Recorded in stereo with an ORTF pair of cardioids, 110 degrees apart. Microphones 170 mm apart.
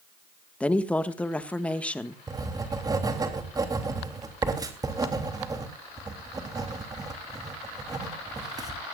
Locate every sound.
0.6 s a woman speaking: 10° left, 1.5 m
2.3 s writing: 20° right, 3 m